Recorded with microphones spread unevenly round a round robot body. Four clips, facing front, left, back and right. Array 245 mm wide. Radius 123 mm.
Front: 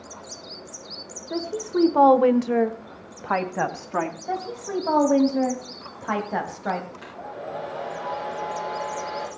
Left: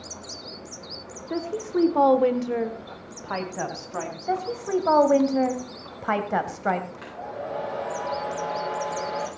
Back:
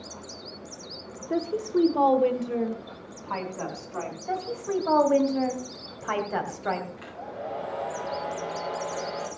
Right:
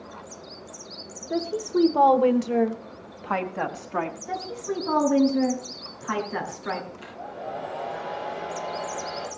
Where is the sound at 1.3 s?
175° left, 1.1 m; by 4.2 s 5° right, 3 m.